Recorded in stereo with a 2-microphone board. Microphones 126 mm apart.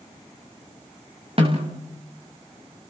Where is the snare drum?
50° right (ahead or behind), 5 m.